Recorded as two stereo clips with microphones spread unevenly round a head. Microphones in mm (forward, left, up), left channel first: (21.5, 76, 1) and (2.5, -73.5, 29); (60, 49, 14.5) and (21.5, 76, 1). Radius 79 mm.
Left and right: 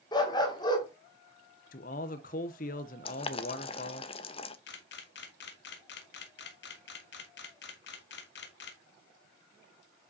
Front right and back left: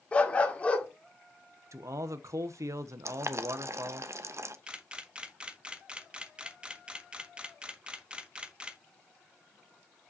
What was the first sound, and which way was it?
A dog barking, 15° left.